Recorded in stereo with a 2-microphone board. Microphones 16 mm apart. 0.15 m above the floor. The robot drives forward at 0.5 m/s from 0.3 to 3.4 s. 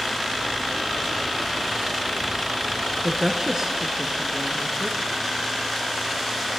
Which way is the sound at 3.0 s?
40° right (ahead or behind).